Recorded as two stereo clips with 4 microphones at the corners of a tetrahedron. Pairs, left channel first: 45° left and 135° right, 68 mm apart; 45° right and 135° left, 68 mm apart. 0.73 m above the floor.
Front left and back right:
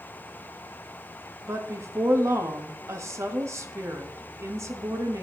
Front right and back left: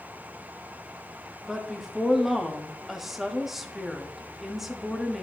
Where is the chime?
No chime in this recording.